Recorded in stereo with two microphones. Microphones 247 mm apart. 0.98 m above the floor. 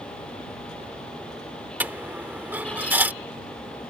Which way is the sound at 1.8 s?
10° right (ahead or behind).